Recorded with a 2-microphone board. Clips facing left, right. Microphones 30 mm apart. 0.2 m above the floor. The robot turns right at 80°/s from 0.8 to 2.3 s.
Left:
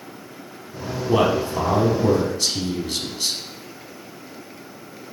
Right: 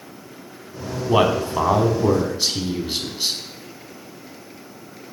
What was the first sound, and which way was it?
A man speaking, 125° right.